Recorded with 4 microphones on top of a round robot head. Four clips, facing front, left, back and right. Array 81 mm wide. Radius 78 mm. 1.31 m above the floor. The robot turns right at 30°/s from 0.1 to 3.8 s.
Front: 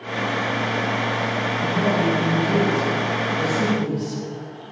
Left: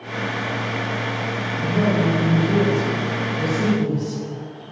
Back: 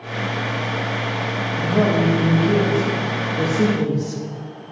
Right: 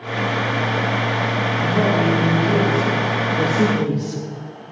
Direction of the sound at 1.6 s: 175° right.